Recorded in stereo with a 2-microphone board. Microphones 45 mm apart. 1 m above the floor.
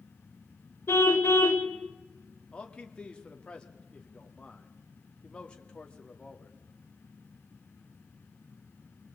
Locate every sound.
0.9 s a car horn: 70° left (ahead or behind), 3 m
2.5 s a man speaking: 25° left (ahead or behind), 2.5 m